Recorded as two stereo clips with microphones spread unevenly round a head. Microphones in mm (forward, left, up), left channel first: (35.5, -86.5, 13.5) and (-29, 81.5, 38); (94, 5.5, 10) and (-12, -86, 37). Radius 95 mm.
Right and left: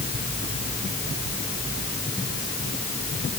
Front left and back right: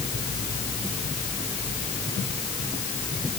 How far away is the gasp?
No gasp in this recording.